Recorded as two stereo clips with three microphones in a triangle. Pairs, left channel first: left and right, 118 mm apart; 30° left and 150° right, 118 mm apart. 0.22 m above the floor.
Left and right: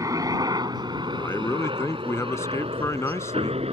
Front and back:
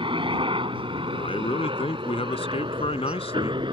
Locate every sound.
0.0 s a helicopter: 140° right; by 3.7 s 110° right
1.1 s a man speaking: 30° left